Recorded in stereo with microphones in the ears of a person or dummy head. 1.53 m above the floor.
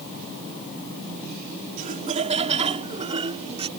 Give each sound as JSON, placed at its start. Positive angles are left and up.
{"t": 1.8, "sound": "laughter", "side_deg": -40}